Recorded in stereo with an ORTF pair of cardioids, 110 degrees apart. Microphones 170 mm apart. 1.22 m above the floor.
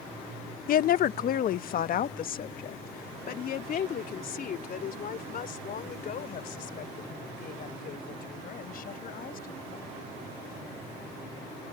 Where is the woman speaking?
55° left.